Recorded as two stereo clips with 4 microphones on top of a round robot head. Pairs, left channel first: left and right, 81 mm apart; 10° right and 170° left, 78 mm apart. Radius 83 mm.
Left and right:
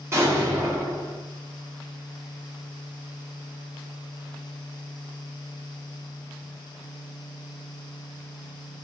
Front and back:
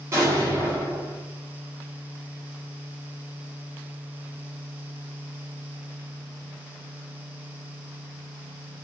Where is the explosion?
140° right, 2 m.